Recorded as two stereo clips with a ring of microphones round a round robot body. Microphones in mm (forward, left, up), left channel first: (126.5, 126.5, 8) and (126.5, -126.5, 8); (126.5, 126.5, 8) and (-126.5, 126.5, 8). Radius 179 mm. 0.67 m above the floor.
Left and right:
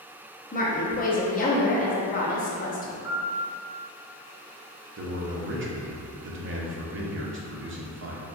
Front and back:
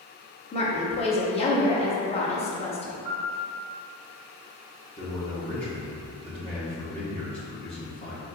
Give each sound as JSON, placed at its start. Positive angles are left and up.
{"t": 0.5, "sound": "a woman speaking", "azimuth_deg": 55, "distance_m": 0.7}
{"t": 3.0, "sound": "a piano", "azimuth_deg": -100, "distance_m": 1.6}
{"t": 5.0, "sound": "a man speaking", "azimuth_deg": -65, "distance_m": 0.7}